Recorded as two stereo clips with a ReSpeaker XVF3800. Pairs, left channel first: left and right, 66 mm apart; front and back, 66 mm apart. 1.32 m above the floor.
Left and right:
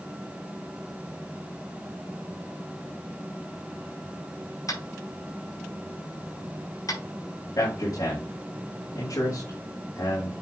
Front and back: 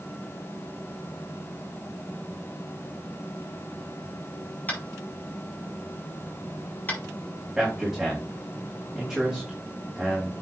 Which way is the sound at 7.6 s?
95° left.